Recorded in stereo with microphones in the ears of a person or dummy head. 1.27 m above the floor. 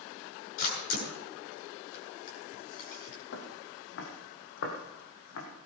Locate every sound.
0.6 s a camera shutter: 55° left (ahead or behind), 8.5 m
3.3 s footsteps: 65° left (ahead or behind), 3.5 m; by 5.5 s 75° left (ahead or behind), 5 m